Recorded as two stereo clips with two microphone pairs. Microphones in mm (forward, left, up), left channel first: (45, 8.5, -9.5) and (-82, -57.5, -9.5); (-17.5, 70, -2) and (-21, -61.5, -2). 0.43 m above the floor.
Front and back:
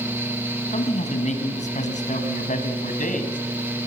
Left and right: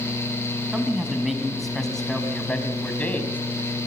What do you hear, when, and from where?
0.7 s a man speaking: 5° right, 4 m; by 3.4 s 15° left, 3.5 m